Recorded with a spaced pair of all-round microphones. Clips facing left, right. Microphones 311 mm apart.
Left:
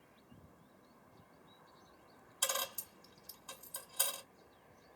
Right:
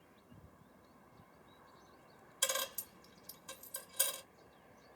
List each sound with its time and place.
2.4 s a dropped coin: 25° right (ahead or behind), 1.1 m